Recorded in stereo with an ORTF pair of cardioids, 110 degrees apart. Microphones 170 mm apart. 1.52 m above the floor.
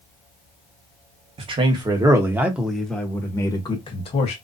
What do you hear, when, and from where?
1.4 s a man speaking: 30° right, 1.5 m; by 4.3 s 40° left, 1.4 m